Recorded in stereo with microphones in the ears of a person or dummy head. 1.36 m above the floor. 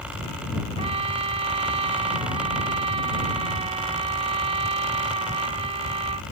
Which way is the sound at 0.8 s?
30° right (ahead or behind).